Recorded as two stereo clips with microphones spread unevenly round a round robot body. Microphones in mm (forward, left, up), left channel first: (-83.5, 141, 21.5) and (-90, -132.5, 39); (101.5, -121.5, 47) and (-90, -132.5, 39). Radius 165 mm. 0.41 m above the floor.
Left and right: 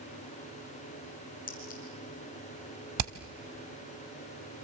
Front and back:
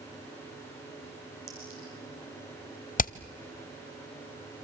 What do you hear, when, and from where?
1.5 s a clink: 150° left, 6.5 m
3.0 s hammering: 50° right, 0.7 m